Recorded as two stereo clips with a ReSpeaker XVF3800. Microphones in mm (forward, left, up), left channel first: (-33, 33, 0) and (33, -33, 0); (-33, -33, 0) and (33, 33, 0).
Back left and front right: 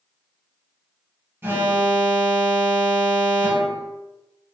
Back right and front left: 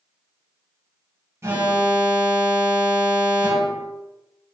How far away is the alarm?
About 0.8 m.